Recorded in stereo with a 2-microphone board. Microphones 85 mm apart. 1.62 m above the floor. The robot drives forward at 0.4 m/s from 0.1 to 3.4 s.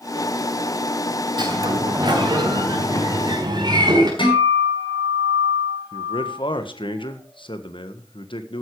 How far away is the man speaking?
About 1.6 m.